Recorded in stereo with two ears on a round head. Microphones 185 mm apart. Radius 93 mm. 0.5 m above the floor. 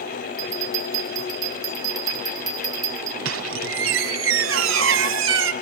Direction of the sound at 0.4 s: 20° right (ahead or behind).